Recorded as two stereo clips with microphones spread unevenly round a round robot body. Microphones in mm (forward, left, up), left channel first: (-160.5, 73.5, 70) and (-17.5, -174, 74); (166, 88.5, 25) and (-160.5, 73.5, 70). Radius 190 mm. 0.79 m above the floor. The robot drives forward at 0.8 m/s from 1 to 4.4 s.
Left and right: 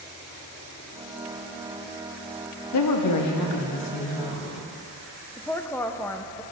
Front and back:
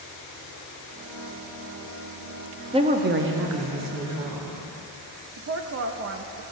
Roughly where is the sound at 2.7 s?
Left.